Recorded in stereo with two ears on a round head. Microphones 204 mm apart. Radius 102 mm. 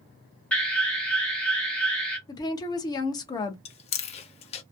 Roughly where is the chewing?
Left.